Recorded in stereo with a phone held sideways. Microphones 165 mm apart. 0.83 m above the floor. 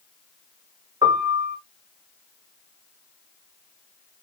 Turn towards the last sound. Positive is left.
turn(degrees=-30)  # may be behind; listen again after turning